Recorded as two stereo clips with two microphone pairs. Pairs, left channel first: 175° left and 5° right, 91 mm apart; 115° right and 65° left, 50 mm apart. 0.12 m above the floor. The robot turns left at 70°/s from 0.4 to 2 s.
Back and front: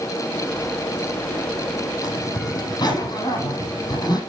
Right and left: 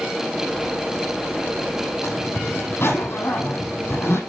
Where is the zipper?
145° right, 5.5 m.